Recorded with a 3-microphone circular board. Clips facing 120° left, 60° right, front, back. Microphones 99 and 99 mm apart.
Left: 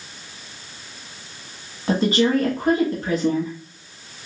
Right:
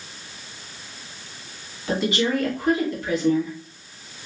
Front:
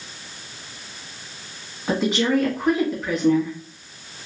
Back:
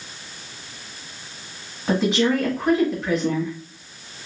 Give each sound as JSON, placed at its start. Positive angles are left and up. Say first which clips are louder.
{"t": 1.9, "sound": "a woman speaking", "louder": "left 4 dB, back 1 dB", "azimuth_deg": 90, "distance_m": 1.3}